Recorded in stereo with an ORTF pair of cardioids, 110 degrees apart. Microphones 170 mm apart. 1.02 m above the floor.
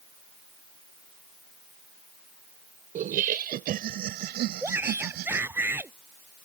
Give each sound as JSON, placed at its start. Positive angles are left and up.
{"t": 3.0, "sound": "laughter", "azimuth_deg": -55}
{"t": 4.6, "sound": "a shout", "azimuth_deg": -10}